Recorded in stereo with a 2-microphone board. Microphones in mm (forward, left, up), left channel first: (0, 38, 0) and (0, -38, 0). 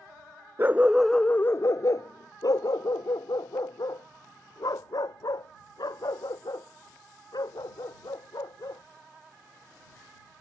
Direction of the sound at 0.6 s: 30° right (ahead or behind).